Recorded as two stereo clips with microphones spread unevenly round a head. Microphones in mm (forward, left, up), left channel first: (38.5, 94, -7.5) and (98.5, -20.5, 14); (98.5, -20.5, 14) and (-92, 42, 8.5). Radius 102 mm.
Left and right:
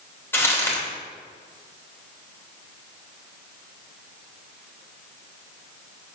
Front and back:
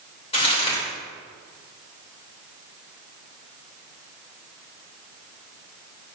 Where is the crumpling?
45° left, 3 m.